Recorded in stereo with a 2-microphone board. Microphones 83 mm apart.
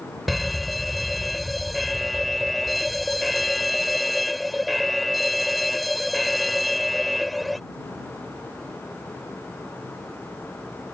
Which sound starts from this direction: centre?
A fire alarm, at 0.3 s.